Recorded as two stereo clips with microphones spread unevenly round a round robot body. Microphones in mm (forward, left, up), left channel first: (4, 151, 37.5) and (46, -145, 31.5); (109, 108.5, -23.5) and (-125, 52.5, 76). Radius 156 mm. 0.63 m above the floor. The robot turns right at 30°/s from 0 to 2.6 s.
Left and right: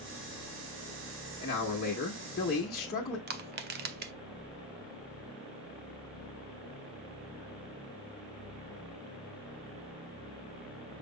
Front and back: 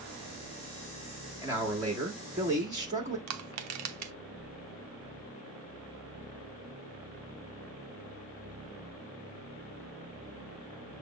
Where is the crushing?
135° right, 0.5 m.